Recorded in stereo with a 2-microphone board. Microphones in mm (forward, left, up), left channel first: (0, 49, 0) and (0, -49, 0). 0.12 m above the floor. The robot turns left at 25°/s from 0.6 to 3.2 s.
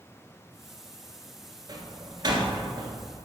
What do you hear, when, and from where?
1.7 s a door slam: 40° right (ahead or behind), 1.5 m; by 3.0 s 50° right (ahead or behind), 1.5 m